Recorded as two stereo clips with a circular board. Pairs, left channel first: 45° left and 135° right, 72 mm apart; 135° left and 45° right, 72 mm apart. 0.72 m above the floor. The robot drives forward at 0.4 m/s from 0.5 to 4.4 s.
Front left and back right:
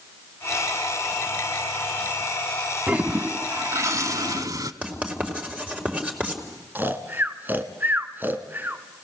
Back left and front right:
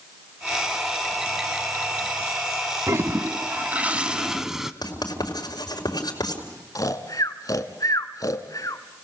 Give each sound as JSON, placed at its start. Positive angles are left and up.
{"t": 2.9, "sound": "a toilet flushing", "azimuth_deg": -70, "distance_m": 0.8}
{"t": 4.8, "sound": "writing", "azimuth_deg": 150, "distance_m": 3.5}
{"t": 6.8, "sound": "snoring", "azimuth_deg": 165, "distance_m": 1.3}